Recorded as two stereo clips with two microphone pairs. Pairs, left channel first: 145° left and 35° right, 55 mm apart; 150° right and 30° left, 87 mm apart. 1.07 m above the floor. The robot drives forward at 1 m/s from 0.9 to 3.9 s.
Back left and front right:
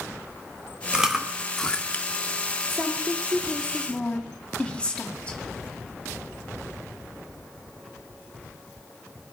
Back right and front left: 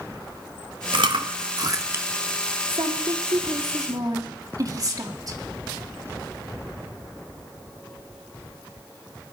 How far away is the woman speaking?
About 2.5 m.